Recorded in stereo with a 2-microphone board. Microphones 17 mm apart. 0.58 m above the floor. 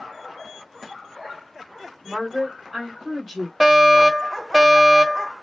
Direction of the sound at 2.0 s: 20° right (ahead or behind).